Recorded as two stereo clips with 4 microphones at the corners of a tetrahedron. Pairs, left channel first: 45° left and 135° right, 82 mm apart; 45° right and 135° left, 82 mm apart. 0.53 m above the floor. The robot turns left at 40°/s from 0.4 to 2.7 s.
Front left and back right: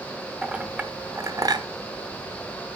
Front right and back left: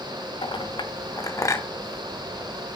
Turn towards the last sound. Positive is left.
turn(degrees=-145)